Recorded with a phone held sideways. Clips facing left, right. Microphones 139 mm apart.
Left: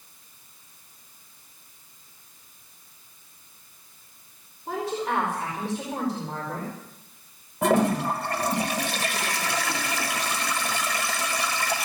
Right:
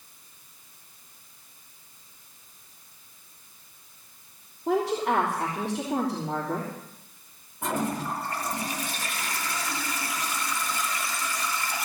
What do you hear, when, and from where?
4.7 s a woman speaking: 80° right, 3.5 m
7.6 s a toilet flushing: 75° left (ahead or behind), 1.3 m